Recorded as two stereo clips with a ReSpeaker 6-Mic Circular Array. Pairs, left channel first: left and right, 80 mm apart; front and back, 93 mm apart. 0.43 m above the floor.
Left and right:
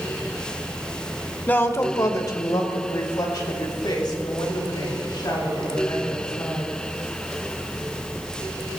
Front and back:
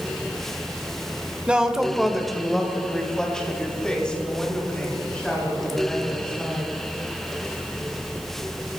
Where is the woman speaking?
120° left, 1.2 m; by 6.7 s 80° left, 7.5 m.